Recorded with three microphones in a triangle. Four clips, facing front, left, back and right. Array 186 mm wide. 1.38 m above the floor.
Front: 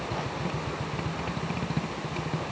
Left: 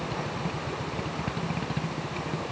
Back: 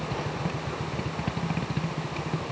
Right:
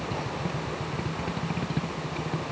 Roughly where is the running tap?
I don't hear a running tap.